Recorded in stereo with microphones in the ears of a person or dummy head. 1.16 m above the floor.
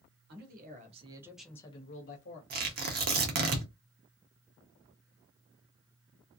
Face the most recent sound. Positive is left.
turn(degrees=-45)  # may be behind; listen again after turning